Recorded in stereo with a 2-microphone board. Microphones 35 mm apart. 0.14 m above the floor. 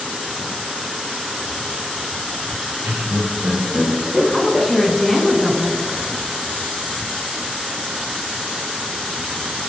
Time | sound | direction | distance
2.8 | laughter | 60° right (ahead or behind) | 2.5 m
4.3 | a woman speaking | 10° left (ahead or behind) | 1.1 m